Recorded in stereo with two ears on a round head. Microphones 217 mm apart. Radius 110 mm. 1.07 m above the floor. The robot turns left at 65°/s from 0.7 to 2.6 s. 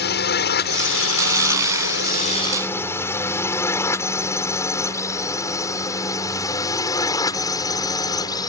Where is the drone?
45° left (ahead or behind); by 8.5 s 15° left (ahead or behind).